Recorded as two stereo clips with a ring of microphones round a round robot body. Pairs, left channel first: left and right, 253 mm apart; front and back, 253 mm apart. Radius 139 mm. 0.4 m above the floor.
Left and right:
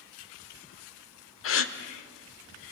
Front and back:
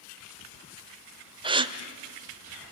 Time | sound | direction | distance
1.4 | a gasp | 115° left | 1.1 m